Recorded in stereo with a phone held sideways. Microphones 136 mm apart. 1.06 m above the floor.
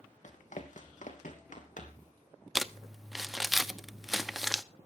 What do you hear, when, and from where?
0.2 s running footsteps: 65° left (ahead or behind), 2.5 m; by 2.1 s 70° left (ahead or behind), 3.5 m
2.5 s crumpling: centre (ahead or behind), 0.7 m